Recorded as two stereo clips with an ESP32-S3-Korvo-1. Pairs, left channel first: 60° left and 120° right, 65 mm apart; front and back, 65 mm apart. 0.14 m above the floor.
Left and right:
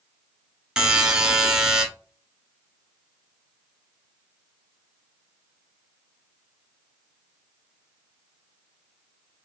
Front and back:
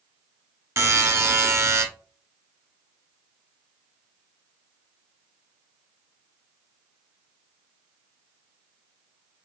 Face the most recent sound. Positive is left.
turn(degrees=165)